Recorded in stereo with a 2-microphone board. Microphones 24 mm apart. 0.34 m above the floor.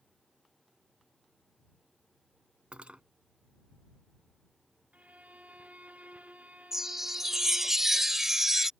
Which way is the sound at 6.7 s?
15° right (ahead or behind).